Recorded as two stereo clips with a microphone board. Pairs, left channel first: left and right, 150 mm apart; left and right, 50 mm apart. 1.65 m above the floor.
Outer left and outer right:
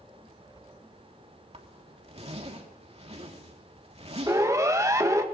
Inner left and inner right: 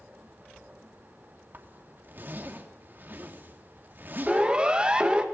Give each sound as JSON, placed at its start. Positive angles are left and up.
{"t": 1.5, "sound": "a zipper", "side_deg": -45, "distance_m": 3.0}
{"t": 4.3, "sound": "a siren", "side_deg": -20, "distance_m": 2.0}